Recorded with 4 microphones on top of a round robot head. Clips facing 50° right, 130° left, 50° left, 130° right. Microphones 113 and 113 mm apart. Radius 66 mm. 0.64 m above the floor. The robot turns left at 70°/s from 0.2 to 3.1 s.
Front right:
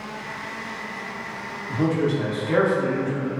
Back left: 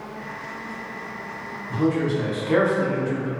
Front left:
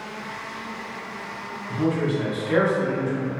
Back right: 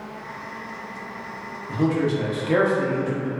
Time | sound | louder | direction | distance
1.7 | a man speaking | even, back right 2 dB | 90° right | 0.7 m